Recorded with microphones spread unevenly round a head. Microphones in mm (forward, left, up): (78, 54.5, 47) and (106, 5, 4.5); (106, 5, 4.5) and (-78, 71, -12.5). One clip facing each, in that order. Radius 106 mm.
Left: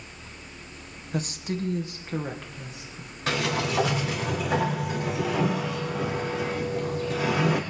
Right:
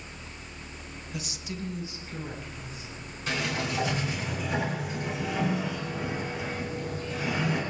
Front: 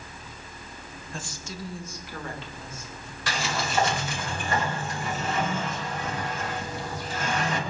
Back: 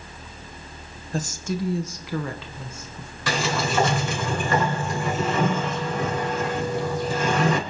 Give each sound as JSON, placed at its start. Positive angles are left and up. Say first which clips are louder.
{"t": 1.1, "sound": "a woman speaking", "louder": "left 9 dB, back 12 dB", "azimuth_deg": 105, "distance_m": 1.3}
{"t": 3.3, "sound": "a sliding door", "louder": "left 4 dB, back 6 dB", "azimuth_deg": 155, "distance_m": 5.0}